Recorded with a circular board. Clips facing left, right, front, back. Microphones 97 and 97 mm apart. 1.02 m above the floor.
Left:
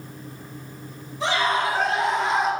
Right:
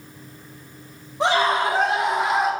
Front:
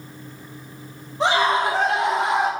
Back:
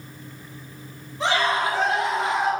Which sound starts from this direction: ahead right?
A scream, at 1.2 s.